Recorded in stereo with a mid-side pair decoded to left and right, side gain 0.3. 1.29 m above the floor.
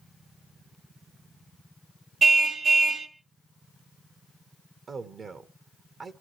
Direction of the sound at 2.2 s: 65° right.